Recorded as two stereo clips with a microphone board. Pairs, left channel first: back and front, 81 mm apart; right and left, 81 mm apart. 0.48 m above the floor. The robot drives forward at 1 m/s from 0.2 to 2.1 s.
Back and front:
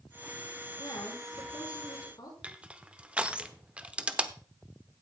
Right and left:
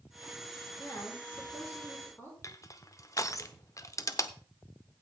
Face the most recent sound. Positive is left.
turn(degrees=-70)